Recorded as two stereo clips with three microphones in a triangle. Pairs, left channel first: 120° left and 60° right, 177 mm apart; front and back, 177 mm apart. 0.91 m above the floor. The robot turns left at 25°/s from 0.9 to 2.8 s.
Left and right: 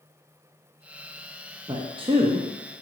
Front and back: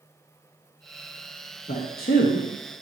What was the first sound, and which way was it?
A man speaking, 5° left.